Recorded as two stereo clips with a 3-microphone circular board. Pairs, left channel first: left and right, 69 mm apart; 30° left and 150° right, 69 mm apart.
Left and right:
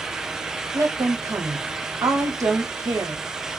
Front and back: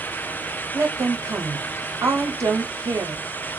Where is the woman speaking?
115° right, 0.8 m.